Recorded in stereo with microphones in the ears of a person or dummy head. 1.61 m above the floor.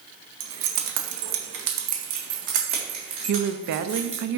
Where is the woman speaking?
65° right (ahead or behind), 0.5 m.